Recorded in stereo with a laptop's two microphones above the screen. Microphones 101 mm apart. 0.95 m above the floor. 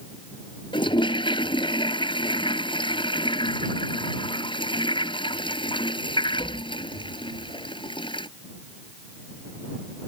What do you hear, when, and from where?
0.7 s a toilet flushing: 55° left (ahead or behind)